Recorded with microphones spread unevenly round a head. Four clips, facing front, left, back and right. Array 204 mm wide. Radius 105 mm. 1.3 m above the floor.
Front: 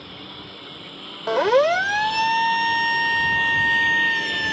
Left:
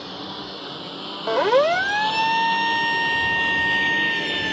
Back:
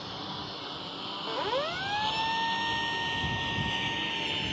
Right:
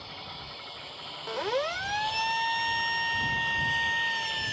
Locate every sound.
0.0 s a lawn mower: 90° left; by 4.5 s 75° left
1.3 s a siren: 35° left; by 4.5 s 20° left